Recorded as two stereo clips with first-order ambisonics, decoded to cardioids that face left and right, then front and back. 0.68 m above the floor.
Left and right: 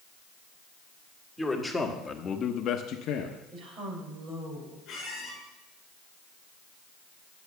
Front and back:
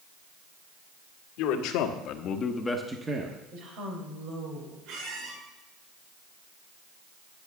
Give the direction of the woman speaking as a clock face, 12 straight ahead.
5 o'clock.